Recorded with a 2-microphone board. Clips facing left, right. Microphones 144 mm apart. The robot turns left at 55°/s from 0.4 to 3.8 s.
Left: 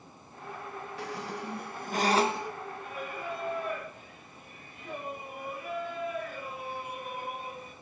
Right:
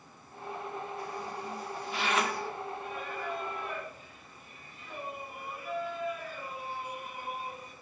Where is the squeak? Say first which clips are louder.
Left 1 dB; 100° left, 0.7 m; by 2.6 s 10° left, 0.7 m.